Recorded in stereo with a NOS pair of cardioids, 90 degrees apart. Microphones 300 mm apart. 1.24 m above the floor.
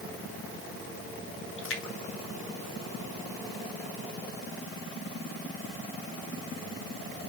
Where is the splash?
45° left, 2 m.